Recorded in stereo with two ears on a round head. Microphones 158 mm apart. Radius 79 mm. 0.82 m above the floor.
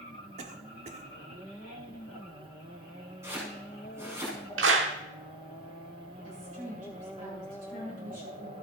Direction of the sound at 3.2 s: 15° right (ahead or behind).